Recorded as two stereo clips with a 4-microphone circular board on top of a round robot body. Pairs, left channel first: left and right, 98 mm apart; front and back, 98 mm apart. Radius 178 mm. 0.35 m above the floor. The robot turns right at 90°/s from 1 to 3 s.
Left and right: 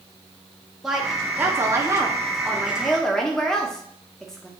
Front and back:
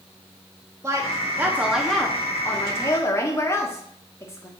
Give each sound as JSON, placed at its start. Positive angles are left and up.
{"t": 0.8, "sound": "a woman speaking", "azimuth_deg": -170, "distance_m": 1.5}